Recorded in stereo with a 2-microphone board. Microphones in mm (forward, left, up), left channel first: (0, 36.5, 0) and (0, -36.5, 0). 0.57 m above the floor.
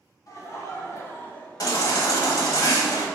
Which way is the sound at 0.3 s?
45° left (ahead or behind).